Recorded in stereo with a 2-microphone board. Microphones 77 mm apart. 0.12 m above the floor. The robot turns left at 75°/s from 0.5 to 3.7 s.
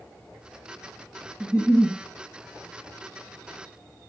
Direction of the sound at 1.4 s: 160° right.